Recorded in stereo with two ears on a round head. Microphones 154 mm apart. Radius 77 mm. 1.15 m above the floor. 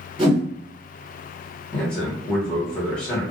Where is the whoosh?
35° right (ahead or behind), 1.5 m.